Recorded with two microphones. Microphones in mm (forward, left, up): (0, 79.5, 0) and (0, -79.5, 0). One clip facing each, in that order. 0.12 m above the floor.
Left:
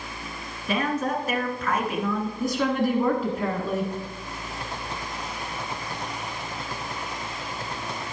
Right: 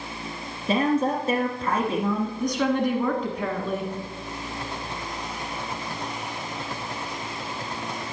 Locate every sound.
0.7 s a woman speaking: 30° right (ahead or behind), 1.1 m
2.4 s a woman speaking: 5° left (ahead or behind), 1.3 m